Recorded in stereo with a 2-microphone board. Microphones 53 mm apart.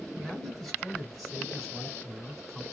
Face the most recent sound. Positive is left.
turn(degrees=0)  # may be behind; listen again after turning